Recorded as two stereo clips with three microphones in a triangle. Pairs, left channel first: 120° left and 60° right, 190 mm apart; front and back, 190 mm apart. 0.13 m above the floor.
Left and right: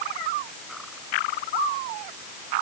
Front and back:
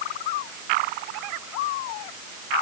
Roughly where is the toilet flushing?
I don't hear a toilet flushing.